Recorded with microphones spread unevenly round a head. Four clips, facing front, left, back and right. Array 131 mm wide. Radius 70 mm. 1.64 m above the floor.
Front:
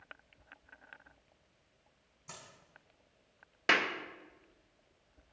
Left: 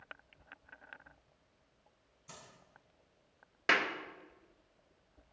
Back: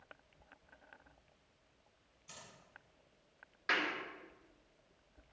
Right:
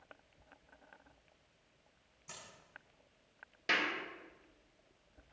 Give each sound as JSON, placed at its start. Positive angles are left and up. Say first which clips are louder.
{"t": 2.3, "sound": "a dropped coin", "louder": "even, front 4 dB", "azimuth_deg": -15, "distance_m": 6.0}
{"t": 3.7, "sound": "a clap", "louder": "left 4 dB, front 5 dB", "azimuth_deg": 20, "distance_m": 1.3}